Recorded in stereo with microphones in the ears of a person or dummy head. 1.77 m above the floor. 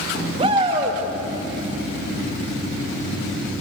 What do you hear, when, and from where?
0.4 s a shout: 30° right (ahead or behind), 2.5 m